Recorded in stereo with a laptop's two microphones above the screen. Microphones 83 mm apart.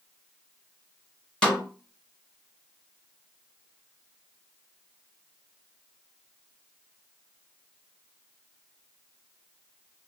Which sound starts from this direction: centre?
A snare drum, at 1.4 s.